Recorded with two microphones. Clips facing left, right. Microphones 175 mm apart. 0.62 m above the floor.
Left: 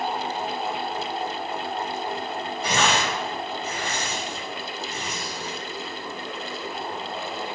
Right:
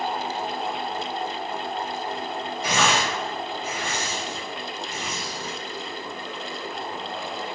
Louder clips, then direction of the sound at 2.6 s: Even; 45° left (ahead or behind).